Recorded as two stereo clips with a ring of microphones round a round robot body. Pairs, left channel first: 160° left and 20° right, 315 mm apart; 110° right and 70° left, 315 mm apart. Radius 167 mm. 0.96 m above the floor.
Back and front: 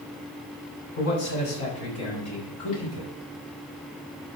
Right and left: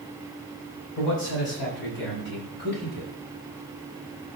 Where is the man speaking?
160° right, 7 m; by 3.1 s 170° right, 7 m.